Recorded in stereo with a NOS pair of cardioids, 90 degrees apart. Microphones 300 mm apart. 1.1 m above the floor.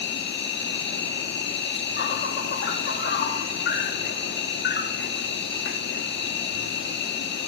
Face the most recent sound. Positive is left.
turn(degrees=40)